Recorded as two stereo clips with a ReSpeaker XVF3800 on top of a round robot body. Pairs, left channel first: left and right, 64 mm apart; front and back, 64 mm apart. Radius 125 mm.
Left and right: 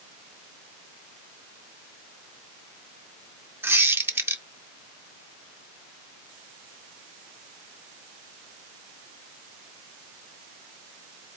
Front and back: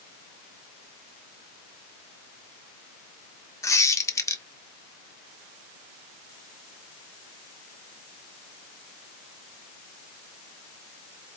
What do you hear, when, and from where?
3.6 s a squeak: 35° right, 1.3 m